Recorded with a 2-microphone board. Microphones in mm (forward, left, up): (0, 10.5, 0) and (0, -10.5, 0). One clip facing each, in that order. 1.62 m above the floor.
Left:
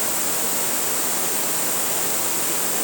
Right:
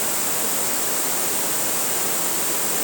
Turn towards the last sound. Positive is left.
No sound to turn to.